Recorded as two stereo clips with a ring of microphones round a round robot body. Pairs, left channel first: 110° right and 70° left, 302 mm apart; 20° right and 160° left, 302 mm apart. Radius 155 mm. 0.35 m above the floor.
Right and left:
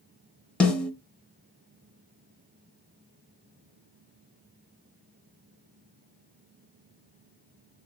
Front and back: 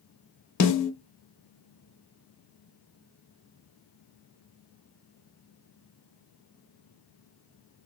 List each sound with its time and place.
0.6 s a snare drum: 25° right, 0.7 m